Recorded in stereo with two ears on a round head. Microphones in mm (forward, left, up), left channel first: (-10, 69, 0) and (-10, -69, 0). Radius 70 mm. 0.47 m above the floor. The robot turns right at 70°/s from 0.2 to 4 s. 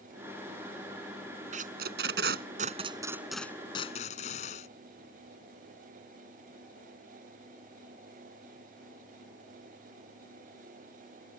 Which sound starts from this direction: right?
Tape being pulled, at 1.5 s.